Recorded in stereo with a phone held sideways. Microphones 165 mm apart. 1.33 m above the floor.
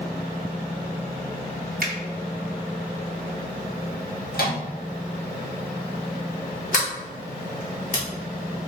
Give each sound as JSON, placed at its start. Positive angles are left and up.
{"t": 1.8, "sound": "a finger snap", "side_deg": -65, "distance_m": 0.7}
{"t": 4.3, "sound": "a microwave", "side_deg": 70, "distance_m": 1.1}
{"t": 6.7, "sound": "a sliding door", "side_deg": 55, "distance_m": 1.2}